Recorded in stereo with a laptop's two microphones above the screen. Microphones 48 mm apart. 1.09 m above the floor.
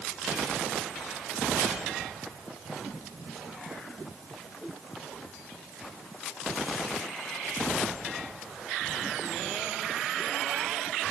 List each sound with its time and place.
Only background noise.